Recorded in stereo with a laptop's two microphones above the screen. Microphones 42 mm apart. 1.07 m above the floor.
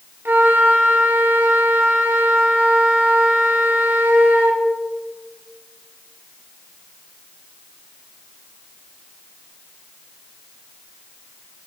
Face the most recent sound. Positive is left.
turn(degrees=-55)  # may be behind; listen again after turning